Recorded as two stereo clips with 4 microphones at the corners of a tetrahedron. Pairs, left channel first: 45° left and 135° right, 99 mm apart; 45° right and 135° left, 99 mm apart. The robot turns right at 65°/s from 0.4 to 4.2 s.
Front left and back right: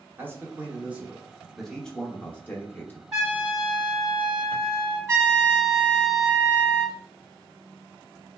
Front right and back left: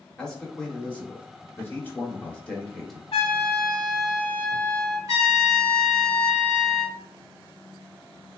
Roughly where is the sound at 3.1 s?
Ahead right.